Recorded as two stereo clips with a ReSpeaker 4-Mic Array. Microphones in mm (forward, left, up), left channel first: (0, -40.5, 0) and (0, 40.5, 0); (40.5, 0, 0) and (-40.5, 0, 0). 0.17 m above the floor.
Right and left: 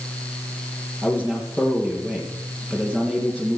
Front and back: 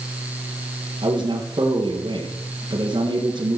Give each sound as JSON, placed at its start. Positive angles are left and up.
{"t": 1.0, "sound": "a man speaking", "azimuth_deg": -170, "distance_m": 3.0}